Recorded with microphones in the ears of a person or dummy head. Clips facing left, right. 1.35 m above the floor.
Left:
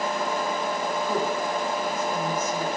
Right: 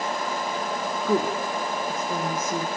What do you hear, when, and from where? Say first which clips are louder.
1.1 s a woman speaking: right 5 dB; 75° right (ahead or behind), 2.5 m